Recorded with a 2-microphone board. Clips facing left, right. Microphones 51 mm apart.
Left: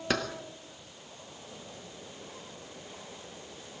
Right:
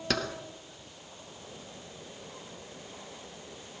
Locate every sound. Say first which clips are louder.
0.1 s keys jangling: left 1 dB; 10° left (ahead or behind), 2 m